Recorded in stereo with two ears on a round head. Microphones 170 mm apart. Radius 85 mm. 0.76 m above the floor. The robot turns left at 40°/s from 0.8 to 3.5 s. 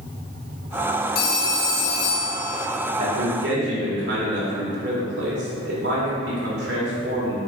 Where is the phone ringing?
125° left, 1.0 m; by 2.7 s 65° left, 1.0 m.